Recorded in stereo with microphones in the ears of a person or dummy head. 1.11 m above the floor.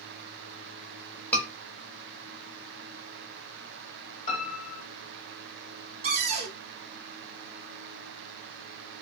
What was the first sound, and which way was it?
A scream, 10° left (ahead or behind).